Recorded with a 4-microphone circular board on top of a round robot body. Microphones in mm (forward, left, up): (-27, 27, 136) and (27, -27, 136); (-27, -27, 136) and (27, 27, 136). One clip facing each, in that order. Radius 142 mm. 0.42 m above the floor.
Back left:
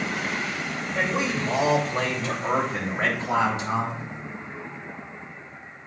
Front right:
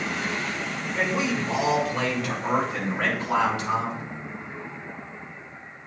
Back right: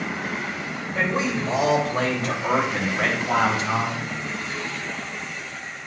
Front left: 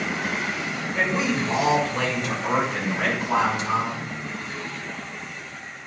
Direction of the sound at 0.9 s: 175° left.